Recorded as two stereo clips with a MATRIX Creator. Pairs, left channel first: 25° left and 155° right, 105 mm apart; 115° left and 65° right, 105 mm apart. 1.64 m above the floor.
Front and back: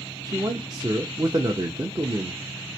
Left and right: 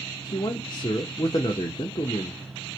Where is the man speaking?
155° left, 0.7 m.